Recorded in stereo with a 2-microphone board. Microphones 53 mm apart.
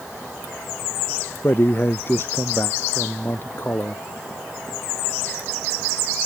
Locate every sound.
1.4 s a man speaking: 45° left (ahead or behind)